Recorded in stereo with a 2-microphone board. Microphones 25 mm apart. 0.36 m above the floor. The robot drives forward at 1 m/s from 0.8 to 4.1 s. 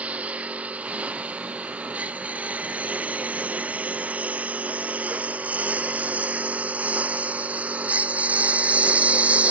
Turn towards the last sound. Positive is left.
turn(degrees=-70)  # may be behind; listen again after turning